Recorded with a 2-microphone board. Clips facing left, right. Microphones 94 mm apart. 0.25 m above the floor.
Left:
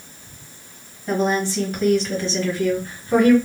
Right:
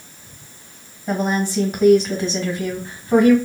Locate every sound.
1.1 s a woman speaking: 15° right (ahead or behind), 1.4 m; by 3.4 s 20° right (ahead or behind), 1.8 m